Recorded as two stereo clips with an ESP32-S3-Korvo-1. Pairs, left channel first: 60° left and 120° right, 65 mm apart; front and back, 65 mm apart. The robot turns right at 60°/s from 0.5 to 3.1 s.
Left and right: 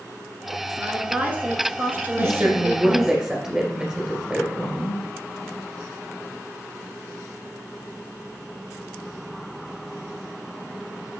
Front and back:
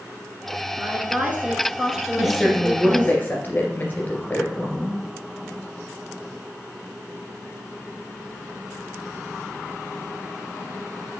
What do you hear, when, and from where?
0.8 s a woman speaking: 175° right, 1.2 m; by 3.2 s 35° right, 1.2 m
2.2 s a woman speaking: 105° right, 2 m; by 5.0 s 45° right, 2 m